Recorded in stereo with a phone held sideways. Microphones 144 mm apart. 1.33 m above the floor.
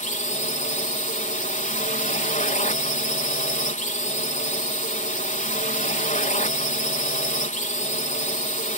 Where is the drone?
60° left (ahead or behind).